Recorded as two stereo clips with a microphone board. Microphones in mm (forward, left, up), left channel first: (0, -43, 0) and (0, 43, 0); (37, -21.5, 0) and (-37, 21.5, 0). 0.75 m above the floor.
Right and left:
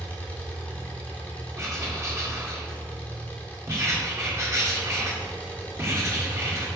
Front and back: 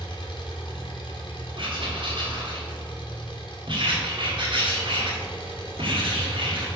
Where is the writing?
145° left, 1.9 m.